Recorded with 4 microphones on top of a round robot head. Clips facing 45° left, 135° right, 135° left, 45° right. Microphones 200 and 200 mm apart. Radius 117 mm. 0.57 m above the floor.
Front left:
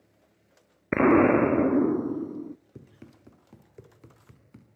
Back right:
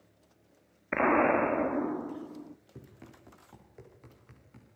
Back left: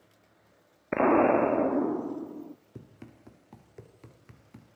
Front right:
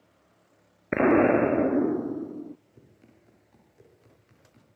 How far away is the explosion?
About 0.5 m.